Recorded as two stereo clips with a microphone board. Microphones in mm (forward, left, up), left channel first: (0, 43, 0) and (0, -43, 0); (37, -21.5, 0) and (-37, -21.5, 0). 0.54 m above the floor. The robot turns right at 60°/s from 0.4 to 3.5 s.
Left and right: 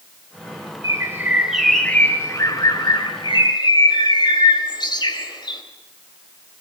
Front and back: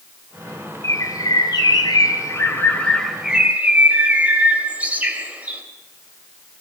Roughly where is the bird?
Ahead right.